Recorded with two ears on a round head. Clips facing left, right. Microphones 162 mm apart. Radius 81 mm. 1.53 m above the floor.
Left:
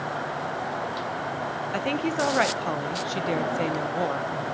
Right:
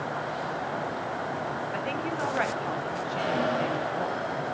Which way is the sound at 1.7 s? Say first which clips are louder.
Left 9 dB; 55° left (ahead or behind).